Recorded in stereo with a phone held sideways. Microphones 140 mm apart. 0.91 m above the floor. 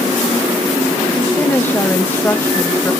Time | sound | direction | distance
1.2 | a woman speaking | 15° left (ahead or behind) | 0.8 m